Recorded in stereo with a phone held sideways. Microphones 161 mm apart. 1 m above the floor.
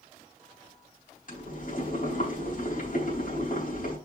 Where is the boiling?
60° left (ahead or behind), 4 m.